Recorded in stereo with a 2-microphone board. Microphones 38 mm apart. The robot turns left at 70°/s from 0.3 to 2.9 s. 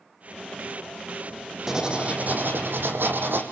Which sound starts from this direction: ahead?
Writing, at 1.7 s.